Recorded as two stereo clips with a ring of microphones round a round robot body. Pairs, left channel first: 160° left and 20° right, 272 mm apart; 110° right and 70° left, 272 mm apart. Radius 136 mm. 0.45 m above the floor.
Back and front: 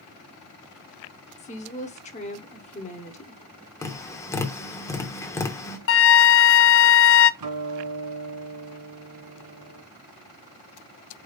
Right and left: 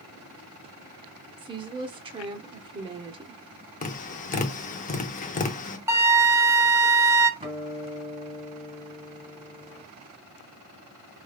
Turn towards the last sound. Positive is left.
turn(degrees=-5)